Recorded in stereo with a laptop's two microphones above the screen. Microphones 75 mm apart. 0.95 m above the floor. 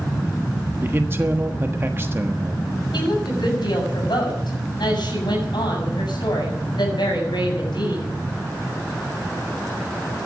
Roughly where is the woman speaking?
Left.